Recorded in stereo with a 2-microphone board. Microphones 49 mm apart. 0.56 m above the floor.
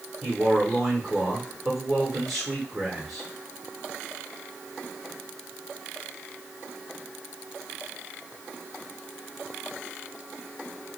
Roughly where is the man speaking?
Centre.